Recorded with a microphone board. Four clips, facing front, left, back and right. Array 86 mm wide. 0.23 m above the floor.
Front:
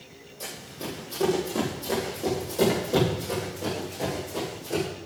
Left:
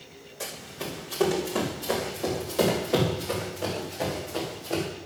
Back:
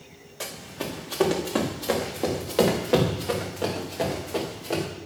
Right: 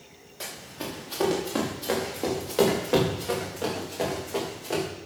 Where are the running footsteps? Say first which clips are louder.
Even, back 3 dB; 160° right, 5.5 m; by 4.8 s 140° right, 7 m.